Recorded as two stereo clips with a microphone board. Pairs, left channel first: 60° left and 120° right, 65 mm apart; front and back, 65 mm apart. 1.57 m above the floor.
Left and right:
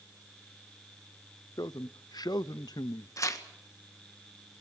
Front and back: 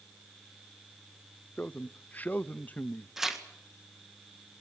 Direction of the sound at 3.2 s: 95° left.